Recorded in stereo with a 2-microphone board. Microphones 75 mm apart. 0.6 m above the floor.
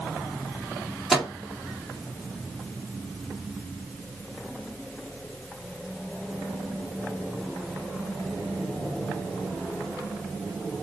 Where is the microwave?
5° right (ahead or behind), 1.2 m.